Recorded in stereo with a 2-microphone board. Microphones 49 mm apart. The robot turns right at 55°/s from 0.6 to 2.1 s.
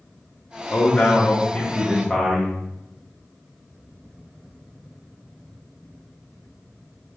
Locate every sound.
0.7 s a man speaking: 30° left (ahead or behind), 0.8 m; by 2.6 s 10° left (ahead or behind), 0.8 m